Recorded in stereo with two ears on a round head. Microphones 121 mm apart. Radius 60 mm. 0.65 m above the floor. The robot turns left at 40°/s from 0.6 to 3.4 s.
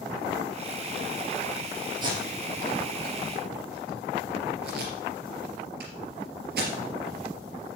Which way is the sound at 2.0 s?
30° right (ahead or behind).